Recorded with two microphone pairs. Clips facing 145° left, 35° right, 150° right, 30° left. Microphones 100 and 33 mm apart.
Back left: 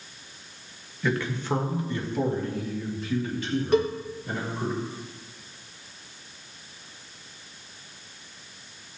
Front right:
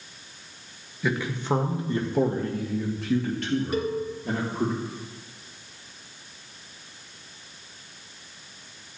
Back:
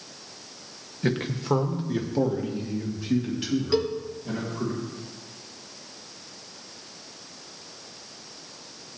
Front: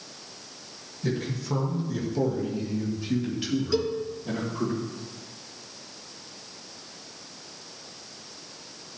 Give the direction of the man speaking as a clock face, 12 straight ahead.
4 o'clock.